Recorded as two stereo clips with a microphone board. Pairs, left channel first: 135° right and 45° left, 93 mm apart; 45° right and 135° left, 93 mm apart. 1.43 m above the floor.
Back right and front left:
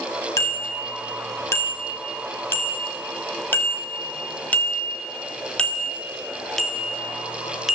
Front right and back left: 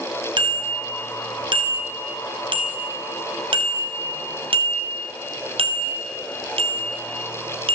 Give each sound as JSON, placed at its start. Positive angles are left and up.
{"t": 0.4, "sound": "a bicycle bell", "azimuth_deg": 165, "distance_m": 7.0}